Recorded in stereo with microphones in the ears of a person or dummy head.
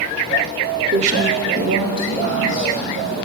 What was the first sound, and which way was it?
A woman speaking, 35° right (ahead or behind).